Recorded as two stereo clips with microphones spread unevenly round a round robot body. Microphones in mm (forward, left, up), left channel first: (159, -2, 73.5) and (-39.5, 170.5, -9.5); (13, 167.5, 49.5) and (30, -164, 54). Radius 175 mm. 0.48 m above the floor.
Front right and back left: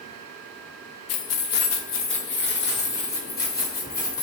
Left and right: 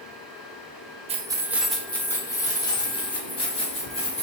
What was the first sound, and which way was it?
Keys jangling, 25° right.